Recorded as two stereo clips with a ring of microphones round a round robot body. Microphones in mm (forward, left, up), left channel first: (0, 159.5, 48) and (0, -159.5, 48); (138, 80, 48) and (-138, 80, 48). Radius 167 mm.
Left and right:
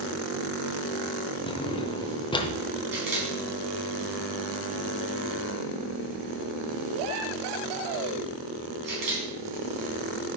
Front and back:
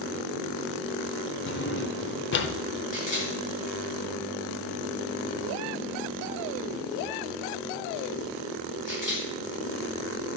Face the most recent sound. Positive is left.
turn(degrees=-65)